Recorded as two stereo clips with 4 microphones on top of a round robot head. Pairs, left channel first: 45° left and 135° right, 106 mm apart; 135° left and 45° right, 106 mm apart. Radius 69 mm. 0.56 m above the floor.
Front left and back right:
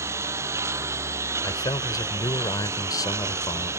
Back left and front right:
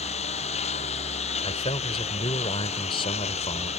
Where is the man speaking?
100° left.